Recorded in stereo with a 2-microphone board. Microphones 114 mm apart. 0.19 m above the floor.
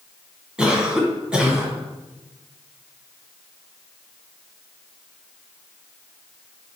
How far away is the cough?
About 1.9 m.